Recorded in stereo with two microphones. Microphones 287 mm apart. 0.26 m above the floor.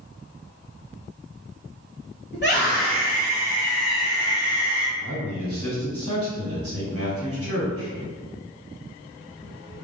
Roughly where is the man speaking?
Right.